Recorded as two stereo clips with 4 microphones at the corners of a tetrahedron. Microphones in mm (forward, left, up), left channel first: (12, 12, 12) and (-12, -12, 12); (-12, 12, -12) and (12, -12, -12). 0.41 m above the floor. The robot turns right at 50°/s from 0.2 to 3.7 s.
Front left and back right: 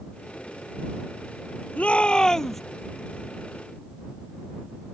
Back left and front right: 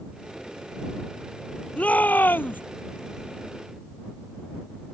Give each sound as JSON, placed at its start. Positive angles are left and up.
{"t": 1.8, "sound": "a shout", "azimuth_deg": 90}